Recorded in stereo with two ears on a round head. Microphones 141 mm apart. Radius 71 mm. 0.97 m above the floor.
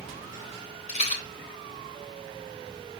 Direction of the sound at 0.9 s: 45° left (ahead or behind).